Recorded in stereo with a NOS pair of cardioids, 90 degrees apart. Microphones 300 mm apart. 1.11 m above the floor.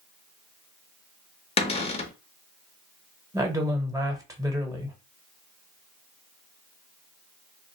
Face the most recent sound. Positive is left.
turn(degrees=-10)